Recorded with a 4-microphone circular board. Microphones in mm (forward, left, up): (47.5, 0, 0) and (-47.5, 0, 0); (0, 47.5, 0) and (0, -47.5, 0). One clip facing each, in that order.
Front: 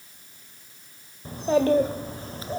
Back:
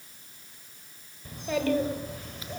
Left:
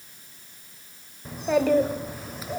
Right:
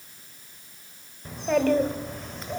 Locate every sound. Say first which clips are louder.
1.2 s a child speaking: front 7 dB, left 1 dB; 10° left, 1.0 m